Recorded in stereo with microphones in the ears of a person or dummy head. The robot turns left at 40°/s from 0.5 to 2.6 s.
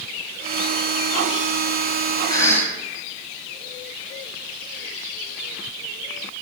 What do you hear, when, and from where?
2.3 s a cough: 25° left (ahead or behind), 1.8 m; by 2.7 s 10° left (ahead or behind), 1.8 m